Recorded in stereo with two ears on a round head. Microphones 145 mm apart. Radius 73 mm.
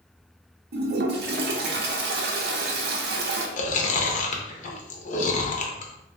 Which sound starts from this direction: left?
Chewing, at 3.6 s.